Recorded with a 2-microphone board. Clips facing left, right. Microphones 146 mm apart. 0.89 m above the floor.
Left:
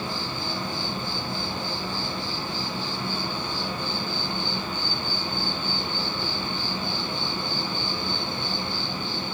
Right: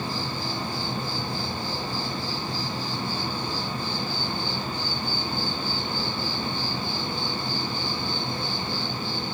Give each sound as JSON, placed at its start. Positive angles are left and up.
{"t": 0.0, "sound": "an insect", "side_deg": -35, "distance_m": 1.8}